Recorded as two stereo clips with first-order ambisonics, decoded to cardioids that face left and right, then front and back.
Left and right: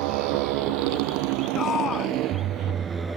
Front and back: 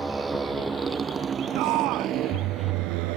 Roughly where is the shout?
Behind left.